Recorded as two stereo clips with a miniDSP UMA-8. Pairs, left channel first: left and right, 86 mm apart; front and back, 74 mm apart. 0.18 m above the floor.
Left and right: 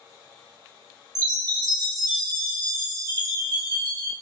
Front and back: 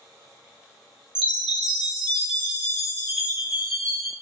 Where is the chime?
105° right, 1.3 m.